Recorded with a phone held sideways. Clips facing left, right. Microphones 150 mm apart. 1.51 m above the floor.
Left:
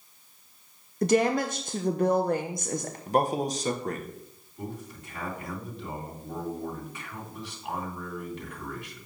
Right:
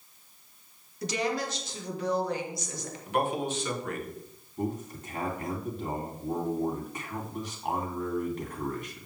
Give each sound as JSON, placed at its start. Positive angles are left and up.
{"t": 1.0, "sound": "a woman speaking", "side_deg": 55, "distance_m": 0.6}
{"t": 3.1, "sound": "a man speaking", "side_deg": 40, "distance_m": 1.2}
{"t": 4.6, "sound": "a man speaking", "side_deg": -45, "distance_m": 2.5}